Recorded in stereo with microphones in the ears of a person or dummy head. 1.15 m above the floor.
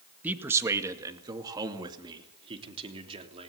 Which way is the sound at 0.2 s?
10° right (ahead or behind).